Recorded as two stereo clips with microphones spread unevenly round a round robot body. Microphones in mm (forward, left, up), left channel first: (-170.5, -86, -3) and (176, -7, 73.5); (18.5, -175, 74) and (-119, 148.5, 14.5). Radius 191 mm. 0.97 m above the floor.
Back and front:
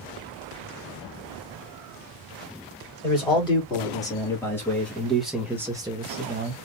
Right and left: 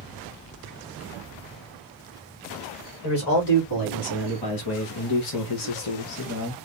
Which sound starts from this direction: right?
A man speaking, at 3.0 s.